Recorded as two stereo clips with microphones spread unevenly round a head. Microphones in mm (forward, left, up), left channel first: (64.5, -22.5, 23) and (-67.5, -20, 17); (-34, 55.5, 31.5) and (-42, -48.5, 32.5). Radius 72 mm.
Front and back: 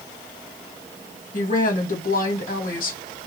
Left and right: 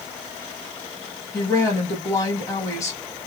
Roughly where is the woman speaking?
Ahead left.